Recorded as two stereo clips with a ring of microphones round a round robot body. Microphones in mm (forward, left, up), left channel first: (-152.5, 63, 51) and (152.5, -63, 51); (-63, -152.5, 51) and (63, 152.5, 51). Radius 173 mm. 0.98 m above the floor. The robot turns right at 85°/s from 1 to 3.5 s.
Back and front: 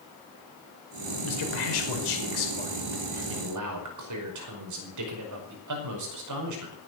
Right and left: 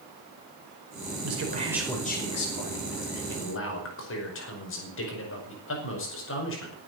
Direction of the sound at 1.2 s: 110° left.